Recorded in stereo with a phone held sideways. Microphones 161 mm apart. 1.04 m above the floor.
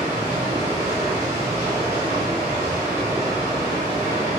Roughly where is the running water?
Right.